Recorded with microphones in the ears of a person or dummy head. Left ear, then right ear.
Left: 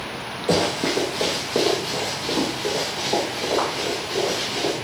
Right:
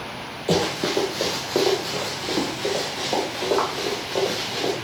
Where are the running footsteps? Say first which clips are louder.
Left 1 dB; 10° right (ahead or behind), 1.7 m; by 4.7 s 35° right (ahead or behind), 5 m.